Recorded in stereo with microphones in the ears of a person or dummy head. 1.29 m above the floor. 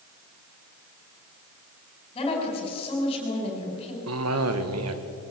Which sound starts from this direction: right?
A cough, at 4.1 s.